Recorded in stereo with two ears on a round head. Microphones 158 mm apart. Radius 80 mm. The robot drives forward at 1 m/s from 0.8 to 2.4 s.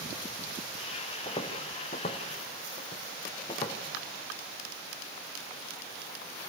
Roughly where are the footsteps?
Left.